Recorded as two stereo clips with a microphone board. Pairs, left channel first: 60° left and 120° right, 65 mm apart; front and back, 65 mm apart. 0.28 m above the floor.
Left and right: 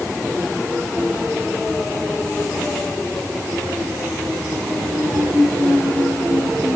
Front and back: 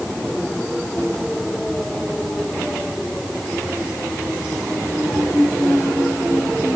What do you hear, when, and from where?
Only background noise.